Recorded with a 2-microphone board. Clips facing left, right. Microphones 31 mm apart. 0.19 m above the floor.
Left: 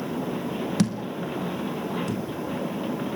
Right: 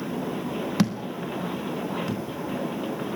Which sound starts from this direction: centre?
A thud, at 0.8 s.